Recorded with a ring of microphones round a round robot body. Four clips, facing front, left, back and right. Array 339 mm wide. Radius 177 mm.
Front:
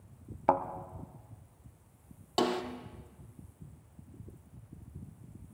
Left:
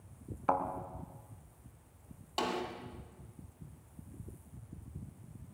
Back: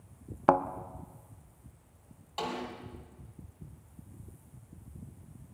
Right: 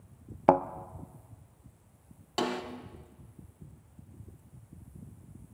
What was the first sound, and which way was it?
A thud, 120° right.